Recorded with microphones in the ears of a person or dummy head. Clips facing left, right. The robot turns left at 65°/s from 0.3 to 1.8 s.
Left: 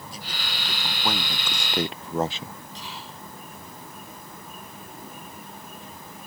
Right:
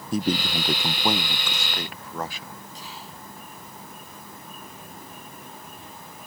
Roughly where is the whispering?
Left.